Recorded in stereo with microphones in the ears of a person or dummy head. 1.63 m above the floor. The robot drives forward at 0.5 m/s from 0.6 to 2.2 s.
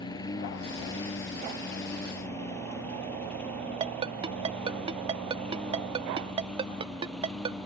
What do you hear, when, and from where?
0.0 s a lawn mower: 15° left (ahead or behind); by 7.7 s 5° right (ahead or behind)
3.8 s a ringtone: 35° right (ahead or behind)